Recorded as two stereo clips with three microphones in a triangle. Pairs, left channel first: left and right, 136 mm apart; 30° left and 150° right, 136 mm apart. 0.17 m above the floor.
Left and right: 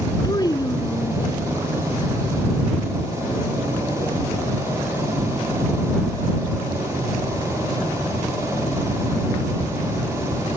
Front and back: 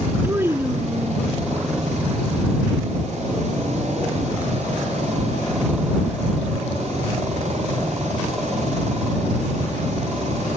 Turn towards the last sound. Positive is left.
turn(degrees=140)